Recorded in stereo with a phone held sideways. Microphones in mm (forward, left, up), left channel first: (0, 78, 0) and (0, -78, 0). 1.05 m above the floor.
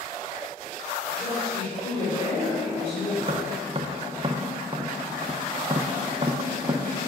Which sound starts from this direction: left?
A woman speaking, at 1.1 s.